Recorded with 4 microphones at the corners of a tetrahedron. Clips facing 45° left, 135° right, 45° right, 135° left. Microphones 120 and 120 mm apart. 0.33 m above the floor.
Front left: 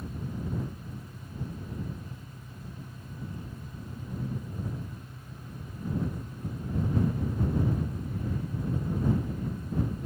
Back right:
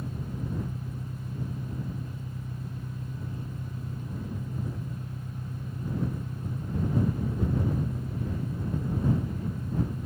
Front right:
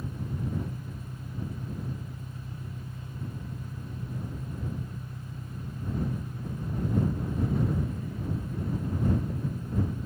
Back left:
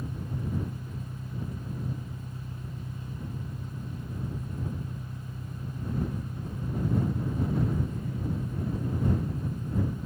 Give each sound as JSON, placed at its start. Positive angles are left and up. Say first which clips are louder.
{"t": 0.0, "sound": "an engine running", "louder": "back right 1 dB, even", "azimuth_deg": -160}